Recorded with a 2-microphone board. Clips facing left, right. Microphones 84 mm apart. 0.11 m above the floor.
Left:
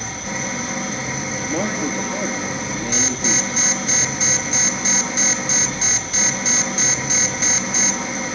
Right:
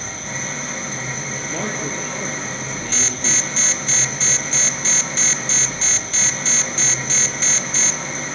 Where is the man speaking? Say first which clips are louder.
Left 4 dB; 15° left (ahead or behind), 3 m.